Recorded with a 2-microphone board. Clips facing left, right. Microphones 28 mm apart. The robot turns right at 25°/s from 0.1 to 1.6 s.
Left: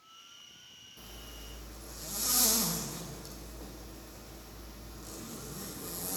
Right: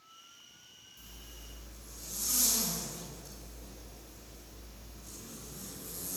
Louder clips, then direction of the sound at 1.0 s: Left 4 dB; 55° left (ahead or behind).